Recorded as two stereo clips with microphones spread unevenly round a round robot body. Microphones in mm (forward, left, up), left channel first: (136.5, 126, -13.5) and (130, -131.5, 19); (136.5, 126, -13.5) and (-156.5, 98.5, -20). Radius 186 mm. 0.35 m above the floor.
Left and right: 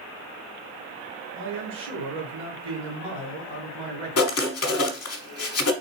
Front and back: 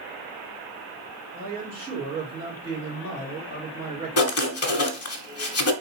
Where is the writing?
50° left, 1.0 m.